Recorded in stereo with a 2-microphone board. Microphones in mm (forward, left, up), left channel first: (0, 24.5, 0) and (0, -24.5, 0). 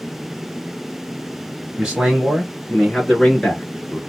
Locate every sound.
1.8 s a man speaking: 15° right (ahead or behind), 1.5 m; by 4.0 s 25° left (ahead or behind), 1.6 m